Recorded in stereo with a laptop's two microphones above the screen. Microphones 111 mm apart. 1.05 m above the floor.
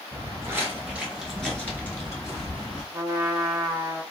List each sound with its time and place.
0.1 s footsteps: 30° right (ahead or behind), 1.1 m; by 2.8 s 40° left (ahead or behind), 1.3 m
2.9 s a trumpet: 25° right (ahead or behind), 0.7 m